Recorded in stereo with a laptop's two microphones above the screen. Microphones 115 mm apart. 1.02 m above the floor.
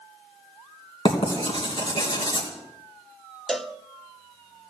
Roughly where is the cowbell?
Centre.